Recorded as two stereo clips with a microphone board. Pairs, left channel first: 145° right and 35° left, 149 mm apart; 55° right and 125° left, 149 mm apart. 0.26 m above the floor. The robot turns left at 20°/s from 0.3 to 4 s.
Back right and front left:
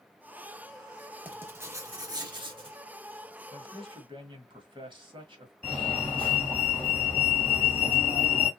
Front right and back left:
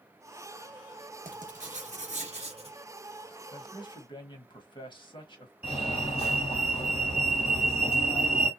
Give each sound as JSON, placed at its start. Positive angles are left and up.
{"t": 1.2, "sound": "writing", "azimuth_deg": 110, "distance_m": 0.8}
{"t": 3.5, "sound": "a man speaking", "azimuth_deg": 0, "distance_m": 1.3}
{"t": 5.6, "sound": "a fire alarm", "azimuth_deg": -70, "distance_m": 3.0}